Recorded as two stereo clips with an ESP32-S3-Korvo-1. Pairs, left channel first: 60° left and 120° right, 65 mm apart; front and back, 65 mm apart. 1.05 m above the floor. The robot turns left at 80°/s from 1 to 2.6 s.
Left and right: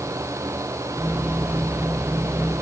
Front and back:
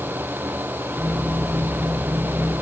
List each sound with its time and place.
Only background noise.